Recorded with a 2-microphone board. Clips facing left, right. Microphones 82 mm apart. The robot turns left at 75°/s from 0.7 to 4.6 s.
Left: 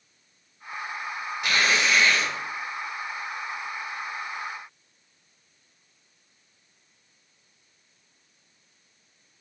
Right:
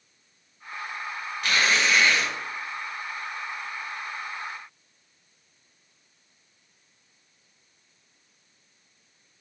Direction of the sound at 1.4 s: 20° left (ahead or behind).